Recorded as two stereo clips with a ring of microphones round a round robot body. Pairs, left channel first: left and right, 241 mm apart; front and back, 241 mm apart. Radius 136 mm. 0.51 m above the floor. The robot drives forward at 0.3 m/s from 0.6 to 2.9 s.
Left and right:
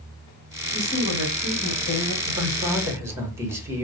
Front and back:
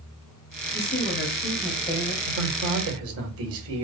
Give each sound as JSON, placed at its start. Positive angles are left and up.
{"t": 0.7, "sound": "a woman speaking", "azimuth_deg": 45, "distance_m": 3.0}
{"t": 2.3, "sound": "a man speaking", "azimuth_deg": -165, "distance_m": 1.8}